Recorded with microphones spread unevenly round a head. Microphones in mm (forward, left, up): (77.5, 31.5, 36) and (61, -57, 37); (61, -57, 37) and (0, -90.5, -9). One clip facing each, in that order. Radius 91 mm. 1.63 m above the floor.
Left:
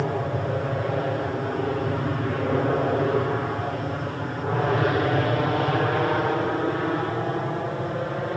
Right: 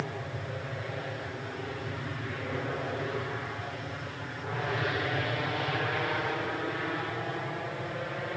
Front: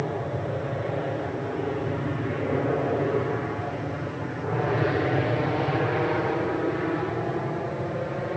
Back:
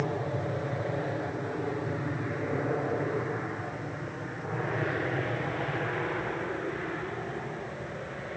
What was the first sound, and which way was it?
An aircraft, 105° left.